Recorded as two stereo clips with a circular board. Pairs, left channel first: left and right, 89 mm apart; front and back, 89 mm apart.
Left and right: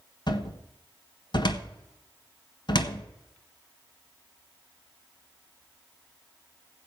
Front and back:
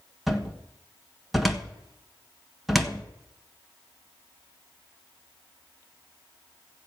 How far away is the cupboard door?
About 1.4 m.